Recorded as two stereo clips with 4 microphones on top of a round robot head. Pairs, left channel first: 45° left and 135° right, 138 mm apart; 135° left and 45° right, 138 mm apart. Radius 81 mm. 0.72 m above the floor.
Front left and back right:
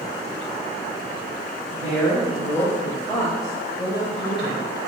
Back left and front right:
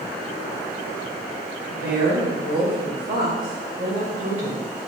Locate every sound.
1.7 s a woman speaking: 35° right, 3.5 m; by 4.7 s 10° right, 2.5 m